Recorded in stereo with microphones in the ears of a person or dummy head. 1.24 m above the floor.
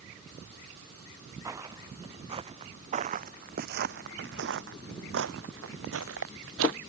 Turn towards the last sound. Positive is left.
turn(degrees=-75)  # may be behind; listen again after turning